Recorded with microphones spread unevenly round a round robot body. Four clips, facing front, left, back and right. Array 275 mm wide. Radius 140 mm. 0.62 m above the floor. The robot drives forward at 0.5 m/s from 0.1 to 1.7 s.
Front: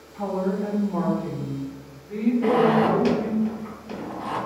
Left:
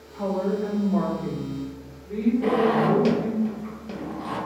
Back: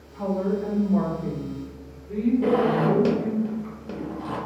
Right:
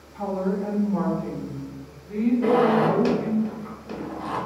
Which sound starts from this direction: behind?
A zipper, at 2.4 s.